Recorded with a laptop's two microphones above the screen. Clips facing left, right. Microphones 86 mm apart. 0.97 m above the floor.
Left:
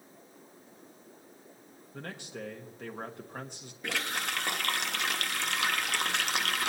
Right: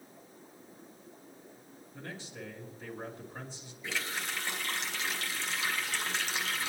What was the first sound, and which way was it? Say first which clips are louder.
A man speaking: left 3 dB; 60° left (ahead or behind).